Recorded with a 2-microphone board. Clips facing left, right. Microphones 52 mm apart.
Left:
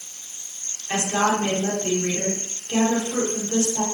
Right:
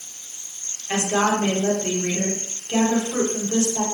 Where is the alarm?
I don't hear an alarm.